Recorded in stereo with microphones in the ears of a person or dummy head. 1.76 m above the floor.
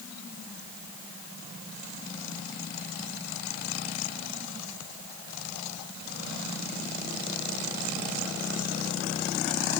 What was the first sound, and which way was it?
Only background noise.